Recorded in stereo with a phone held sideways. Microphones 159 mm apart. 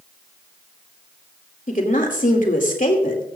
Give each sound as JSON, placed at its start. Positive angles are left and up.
{"t": 1.7, "sound": "a woman speaking", "side_deg": 55, "distance_m": 2.5}